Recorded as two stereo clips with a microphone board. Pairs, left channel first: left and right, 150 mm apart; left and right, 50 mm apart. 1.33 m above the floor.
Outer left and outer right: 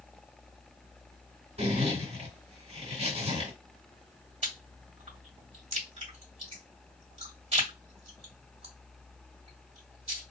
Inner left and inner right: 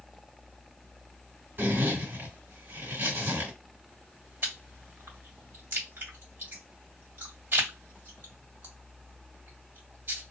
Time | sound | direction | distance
1.6 | a zipper | 45° right (ahead or behind) | 1.6 m
4.4 | chewing | 45° right (ahead or behind) | 1.5 m